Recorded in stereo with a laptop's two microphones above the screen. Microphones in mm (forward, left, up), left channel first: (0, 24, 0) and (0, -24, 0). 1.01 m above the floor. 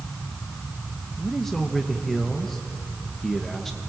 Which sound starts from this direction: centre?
A man speaking, at 1.2 s.